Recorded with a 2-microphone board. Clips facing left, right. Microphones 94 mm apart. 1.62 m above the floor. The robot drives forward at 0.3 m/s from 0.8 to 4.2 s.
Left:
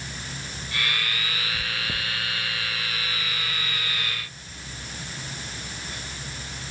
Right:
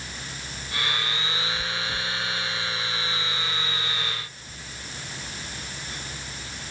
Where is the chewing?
25° left (ahead or behind), 0.6 m.